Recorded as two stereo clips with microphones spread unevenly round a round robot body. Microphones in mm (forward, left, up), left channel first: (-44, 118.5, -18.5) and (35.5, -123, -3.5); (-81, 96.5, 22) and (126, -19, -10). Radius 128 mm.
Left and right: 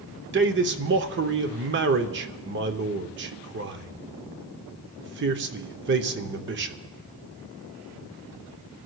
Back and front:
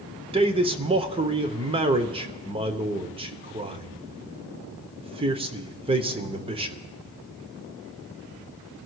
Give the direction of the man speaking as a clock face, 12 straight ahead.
2 o'clock.